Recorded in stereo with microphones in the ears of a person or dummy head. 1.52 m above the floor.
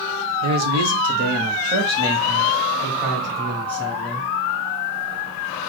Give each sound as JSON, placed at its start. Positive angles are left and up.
{"t": 0.4, "sound": "a man speaking", "side_deg": -70, "distance_m": 1.2}